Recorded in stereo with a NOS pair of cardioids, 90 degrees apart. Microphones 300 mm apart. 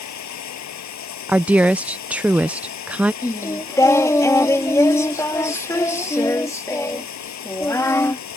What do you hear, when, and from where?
0.0 s running water: 65° left
1.3 s a woman speaking: 5° right
3.2 s singing: 10° left